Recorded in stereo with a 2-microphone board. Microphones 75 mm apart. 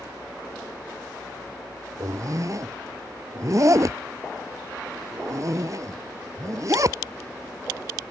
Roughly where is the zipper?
Right.